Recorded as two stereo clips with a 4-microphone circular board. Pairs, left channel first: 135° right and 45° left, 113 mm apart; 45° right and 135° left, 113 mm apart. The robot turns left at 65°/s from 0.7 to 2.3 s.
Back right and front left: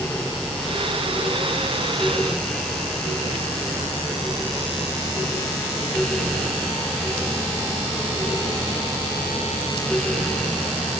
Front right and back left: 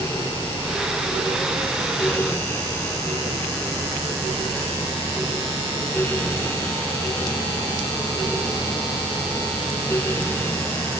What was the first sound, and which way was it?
Only background noise.